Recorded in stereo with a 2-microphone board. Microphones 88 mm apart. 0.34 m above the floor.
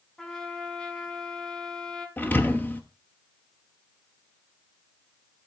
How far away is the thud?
About 1.1 m.